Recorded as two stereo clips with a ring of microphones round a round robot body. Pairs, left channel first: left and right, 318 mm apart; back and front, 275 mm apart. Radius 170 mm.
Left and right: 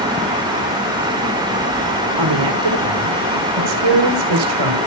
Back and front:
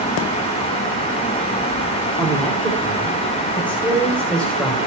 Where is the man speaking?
95° right, 3.5 m.